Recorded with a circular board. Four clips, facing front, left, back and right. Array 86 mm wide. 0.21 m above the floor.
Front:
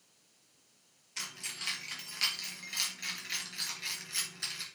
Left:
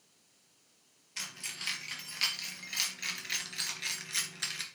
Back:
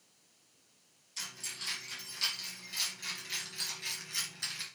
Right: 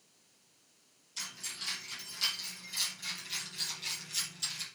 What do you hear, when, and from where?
1.2 s keys jangling: 50° left, 3.5 m; by 4.7 s 90° left, 2.5 m